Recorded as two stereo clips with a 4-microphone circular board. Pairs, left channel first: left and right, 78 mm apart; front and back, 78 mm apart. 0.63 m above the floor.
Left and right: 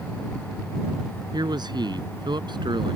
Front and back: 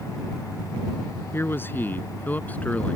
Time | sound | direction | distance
1.3 | a man speaking | 60° right | ?